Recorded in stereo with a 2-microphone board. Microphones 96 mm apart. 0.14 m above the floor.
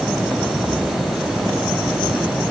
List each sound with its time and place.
Only background noise.